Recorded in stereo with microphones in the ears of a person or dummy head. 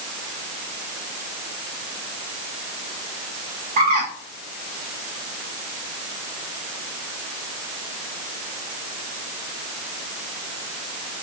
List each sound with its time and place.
3.8 s a bird: 50° right (ahead or behind), 1.0 m